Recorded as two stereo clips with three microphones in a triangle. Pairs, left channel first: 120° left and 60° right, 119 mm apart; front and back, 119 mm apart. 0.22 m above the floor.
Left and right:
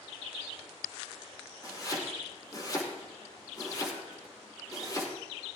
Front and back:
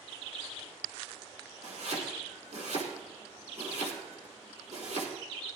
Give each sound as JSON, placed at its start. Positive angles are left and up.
{"t": 1.6, "sound": "chopping", "azimuth_deg": 175, "distance_m": 4.5}